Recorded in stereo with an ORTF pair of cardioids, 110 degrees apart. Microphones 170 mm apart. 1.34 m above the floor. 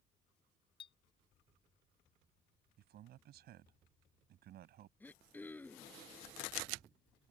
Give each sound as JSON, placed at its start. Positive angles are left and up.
{"t": 0.8, "sound": "a clink", "azimuth_deg": 30}
{"t": 2.8, "sound": "a man speaking", "azimuth_deg": -70}
{"t": 5.0, "sound": "throat clearing", "azimuth_deg": 10}